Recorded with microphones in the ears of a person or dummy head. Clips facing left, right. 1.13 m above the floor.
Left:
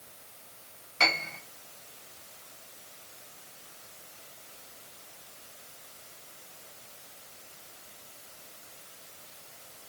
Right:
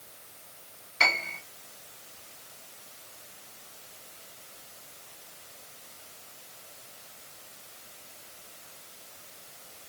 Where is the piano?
35° left (ahead or behind), 4.5 m.